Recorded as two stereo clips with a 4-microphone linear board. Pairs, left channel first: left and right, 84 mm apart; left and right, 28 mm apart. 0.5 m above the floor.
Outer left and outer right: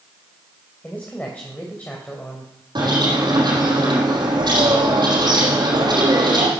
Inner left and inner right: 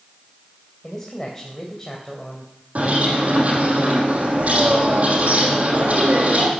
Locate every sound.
0.8 s a man speaking: 15° left (ahead or behind), 3 m
2.8 s a bird: 60° right (ahead or behind), 5.5 m